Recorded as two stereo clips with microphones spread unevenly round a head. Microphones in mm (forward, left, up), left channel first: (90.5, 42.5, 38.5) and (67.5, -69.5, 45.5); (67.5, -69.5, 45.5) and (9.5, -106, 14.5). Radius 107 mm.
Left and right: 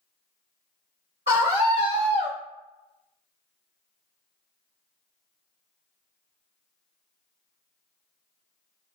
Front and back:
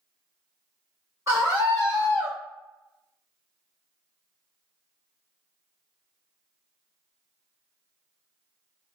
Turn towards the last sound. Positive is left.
turn(degrees=135)